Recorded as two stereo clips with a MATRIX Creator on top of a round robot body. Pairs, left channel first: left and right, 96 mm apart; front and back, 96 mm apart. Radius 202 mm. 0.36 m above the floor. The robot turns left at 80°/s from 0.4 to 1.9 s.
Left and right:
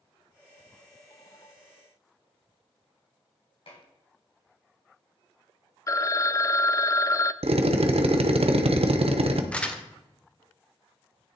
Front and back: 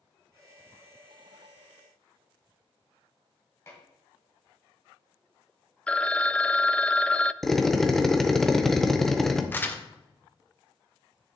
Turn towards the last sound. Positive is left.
turn(degrees=30)